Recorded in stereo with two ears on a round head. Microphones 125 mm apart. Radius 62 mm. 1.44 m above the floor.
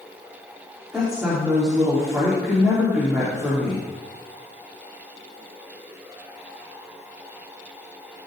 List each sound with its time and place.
0.9 s a woman speaking: 5° right (ahead or behind), 3 m